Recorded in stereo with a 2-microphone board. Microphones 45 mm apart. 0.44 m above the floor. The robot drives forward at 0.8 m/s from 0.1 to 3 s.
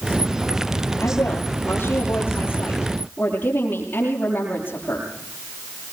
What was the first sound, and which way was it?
A woman speaking, 60° left (ahead or behind).